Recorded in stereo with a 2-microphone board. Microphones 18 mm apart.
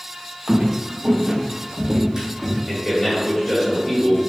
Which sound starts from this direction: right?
Footsteps, at 0.5 s.